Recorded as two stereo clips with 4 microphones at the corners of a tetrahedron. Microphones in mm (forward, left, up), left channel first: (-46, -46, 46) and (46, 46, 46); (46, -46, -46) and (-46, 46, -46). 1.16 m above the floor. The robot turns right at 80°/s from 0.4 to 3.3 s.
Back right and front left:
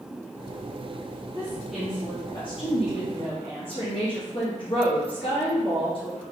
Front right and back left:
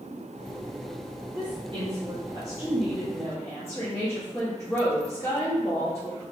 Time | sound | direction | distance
1.4 | a woman speaking | 100° left | 0.7 m